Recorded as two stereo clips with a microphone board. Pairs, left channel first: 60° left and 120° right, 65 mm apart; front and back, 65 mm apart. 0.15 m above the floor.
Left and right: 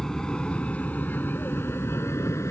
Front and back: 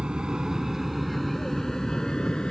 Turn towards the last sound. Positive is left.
turn(degrees=70)